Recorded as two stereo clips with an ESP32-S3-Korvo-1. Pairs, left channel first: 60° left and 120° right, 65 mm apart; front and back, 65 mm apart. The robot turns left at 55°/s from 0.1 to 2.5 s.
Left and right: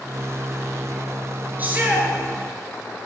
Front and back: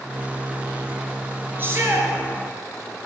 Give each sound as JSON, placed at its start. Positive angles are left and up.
{"t": 1.6, "sound": "a shout", "azimuth_deg": -160, "distance_m": 2.0}